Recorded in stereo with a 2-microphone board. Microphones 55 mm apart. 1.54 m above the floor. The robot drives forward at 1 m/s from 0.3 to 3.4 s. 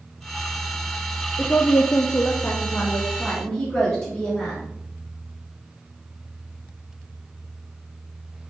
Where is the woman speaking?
35° left (ahead or behind), 0.6 m; by 4.6 s 10° left (ahead or behind), 1.6 m.